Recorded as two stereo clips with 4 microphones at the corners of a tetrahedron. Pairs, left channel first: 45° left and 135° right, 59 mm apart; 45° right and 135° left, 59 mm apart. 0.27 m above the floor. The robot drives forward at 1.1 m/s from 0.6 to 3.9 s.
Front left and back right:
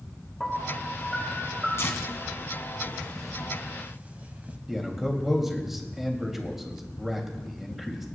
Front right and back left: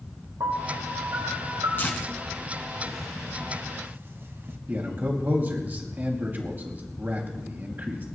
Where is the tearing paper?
5° left, 1.7 m; by 4.6 s 170° left, 1.0 m.